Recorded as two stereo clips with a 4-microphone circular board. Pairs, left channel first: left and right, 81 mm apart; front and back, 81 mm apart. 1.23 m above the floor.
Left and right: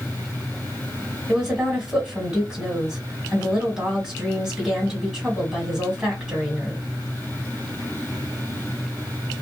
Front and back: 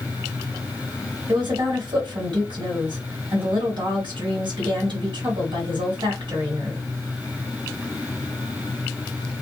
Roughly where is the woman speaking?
Behind.